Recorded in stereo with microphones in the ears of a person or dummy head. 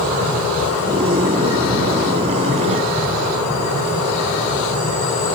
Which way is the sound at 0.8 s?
30° right (ahead or behind).